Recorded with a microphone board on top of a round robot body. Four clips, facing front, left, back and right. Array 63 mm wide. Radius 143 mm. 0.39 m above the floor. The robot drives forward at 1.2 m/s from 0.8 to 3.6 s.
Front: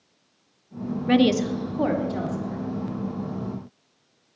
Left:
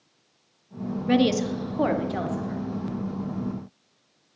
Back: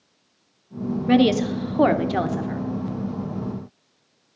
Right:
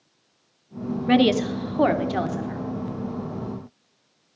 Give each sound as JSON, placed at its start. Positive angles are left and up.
{"t": 1.1, "sound": "a woman speaking", "azimuth_deg": -70, "distance_m": 1.2}